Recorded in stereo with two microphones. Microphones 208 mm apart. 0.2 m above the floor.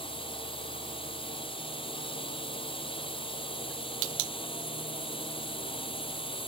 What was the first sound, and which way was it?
A drone, 25° left (ahead or behind).